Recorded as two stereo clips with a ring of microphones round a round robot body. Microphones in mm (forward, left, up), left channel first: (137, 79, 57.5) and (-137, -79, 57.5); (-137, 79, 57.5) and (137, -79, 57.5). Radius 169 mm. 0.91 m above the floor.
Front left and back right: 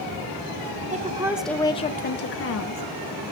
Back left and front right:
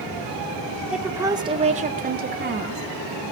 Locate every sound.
0.9 s a woman speaking: 115° right, 0.9 m; by 2.8 s 15° left, 1.3 m